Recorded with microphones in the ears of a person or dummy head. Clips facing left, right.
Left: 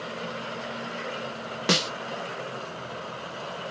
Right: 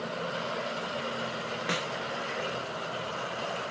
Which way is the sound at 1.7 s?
50° left (ahead or behind).